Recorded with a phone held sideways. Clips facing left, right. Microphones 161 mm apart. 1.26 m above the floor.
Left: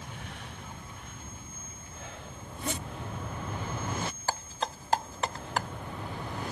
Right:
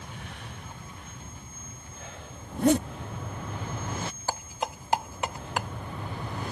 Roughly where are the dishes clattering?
Centre.